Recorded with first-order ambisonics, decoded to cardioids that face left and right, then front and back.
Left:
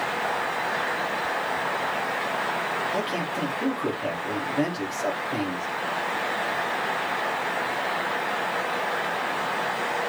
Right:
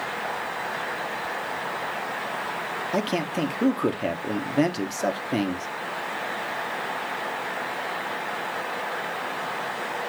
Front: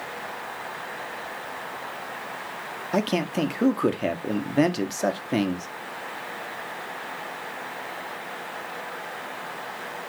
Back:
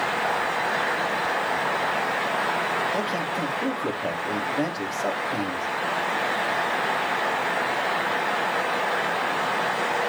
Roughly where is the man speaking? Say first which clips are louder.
Right 1 dB, even; ahead right.